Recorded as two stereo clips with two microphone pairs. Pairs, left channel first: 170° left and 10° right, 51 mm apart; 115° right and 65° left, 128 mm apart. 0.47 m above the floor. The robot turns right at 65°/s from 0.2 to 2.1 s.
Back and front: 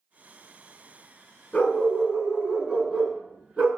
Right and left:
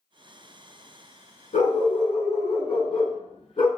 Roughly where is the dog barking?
Right.